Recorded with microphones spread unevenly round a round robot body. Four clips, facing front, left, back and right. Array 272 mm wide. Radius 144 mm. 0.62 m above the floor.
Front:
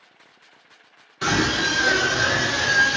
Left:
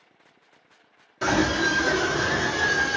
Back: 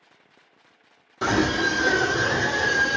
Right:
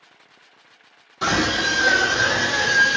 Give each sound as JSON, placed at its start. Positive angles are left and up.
{"t": 1.2, "sound": "a scream", "azimuth_deg": -170, "distance_m": 1.7}